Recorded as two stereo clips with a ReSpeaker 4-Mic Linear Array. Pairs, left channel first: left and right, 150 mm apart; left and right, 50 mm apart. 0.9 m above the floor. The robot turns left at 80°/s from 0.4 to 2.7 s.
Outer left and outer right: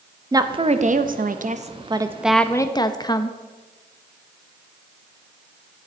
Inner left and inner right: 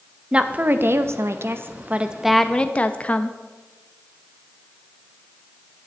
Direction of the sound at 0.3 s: 25° right.